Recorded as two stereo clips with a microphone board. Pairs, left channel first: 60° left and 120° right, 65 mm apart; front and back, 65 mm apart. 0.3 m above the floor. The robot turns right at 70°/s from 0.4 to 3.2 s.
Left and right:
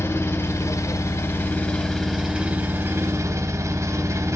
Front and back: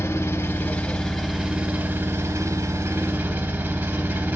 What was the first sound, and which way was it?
An engine running, 35° left.